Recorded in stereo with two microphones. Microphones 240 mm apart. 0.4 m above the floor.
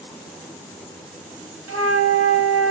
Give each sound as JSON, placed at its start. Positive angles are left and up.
{"t": 1.7, "sound": "a flute", "side_deg": -80, "distance_m": 0.6}